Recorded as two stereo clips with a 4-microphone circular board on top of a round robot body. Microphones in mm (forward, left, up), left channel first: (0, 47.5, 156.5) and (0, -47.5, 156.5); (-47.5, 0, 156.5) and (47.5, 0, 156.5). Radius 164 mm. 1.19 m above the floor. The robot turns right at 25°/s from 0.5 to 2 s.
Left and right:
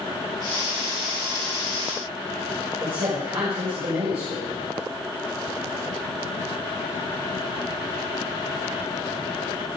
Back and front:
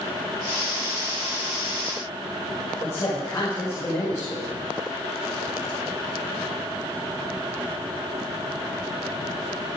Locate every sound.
2.8 s a man speaking: 120° right, 6.5 m